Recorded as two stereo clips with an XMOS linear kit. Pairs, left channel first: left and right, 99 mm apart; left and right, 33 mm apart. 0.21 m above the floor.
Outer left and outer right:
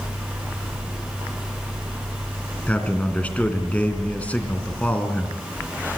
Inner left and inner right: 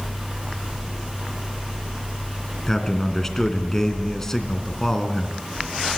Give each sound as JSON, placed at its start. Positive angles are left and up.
{"t": 2.7, "sound": "a man speaking", "side_deg": 15, "distance_m": 2.5}